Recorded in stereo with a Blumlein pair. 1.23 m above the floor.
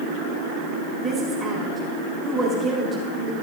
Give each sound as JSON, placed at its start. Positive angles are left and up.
{"t": 1.0, "sound": "a woman speaking", "azimuth_deg": -15, "distance_m": 4.0}